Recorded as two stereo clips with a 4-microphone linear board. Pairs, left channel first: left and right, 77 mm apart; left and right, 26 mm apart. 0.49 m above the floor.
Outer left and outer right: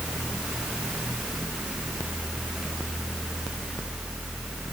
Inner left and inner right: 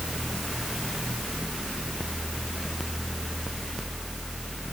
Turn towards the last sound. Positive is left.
No sound to turn to.